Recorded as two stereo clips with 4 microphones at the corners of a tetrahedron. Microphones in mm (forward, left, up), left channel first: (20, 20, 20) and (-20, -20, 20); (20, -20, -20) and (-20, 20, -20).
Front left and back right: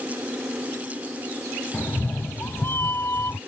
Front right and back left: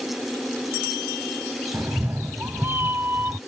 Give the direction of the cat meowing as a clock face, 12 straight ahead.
9 o'clock.